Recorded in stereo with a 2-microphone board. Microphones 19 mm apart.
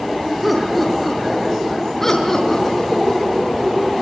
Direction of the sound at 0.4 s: Centre (ahead or behind).